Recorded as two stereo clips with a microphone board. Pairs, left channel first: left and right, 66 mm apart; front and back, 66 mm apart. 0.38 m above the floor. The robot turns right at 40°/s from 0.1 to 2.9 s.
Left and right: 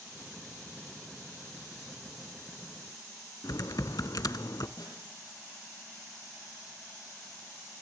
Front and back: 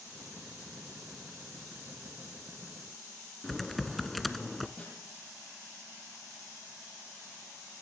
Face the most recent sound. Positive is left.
turn(degrees=70)